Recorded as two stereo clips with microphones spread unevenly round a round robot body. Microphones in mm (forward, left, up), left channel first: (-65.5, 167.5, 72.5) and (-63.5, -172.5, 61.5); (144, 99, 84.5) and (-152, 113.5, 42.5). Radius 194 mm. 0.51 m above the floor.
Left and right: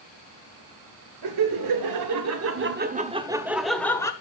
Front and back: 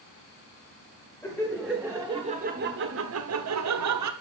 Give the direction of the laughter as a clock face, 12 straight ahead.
3 o'clock.